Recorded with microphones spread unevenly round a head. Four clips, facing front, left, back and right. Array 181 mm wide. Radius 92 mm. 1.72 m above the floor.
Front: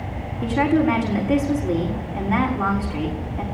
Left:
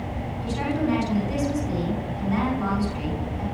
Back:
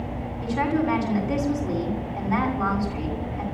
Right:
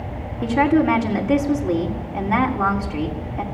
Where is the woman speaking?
60° right, 6.5 m.